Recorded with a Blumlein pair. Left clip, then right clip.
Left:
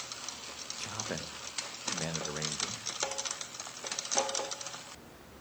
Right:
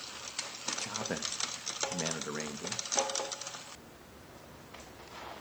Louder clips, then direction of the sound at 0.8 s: Even; 5° right.